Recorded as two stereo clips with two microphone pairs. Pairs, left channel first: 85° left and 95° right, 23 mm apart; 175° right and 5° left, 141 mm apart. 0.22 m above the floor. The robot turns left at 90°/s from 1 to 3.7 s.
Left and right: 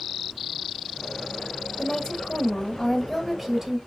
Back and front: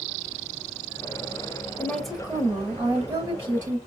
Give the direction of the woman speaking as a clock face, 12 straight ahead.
8 o'clock.